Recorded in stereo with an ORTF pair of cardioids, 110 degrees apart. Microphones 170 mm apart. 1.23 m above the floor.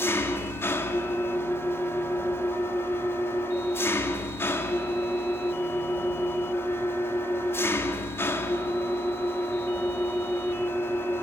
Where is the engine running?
15° left, 2.5 m.